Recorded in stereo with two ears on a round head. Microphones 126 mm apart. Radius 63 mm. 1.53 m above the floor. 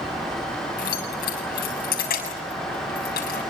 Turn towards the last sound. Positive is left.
turn(degrees=80)